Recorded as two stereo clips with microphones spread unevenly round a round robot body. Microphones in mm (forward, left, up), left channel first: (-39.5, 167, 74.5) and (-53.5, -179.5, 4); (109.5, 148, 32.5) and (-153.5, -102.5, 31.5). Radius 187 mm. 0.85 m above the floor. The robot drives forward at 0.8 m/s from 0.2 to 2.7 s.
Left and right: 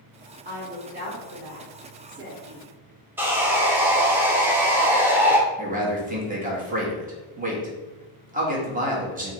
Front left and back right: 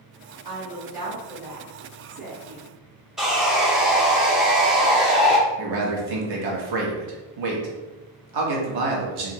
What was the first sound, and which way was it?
A woman speaking, 150° right.